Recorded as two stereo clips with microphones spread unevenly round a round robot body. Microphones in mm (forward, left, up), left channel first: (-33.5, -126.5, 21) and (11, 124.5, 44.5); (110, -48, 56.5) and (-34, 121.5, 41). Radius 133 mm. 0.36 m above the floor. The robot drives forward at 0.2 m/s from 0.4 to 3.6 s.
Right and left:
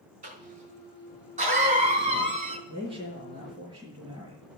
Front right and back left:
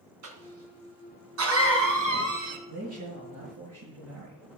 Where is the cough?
145° left, 3 m.